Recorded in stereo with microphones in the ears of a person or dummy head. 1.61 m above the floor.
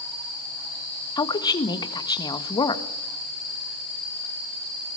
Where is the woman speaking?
20° left (ahead or behind), 1.6 m.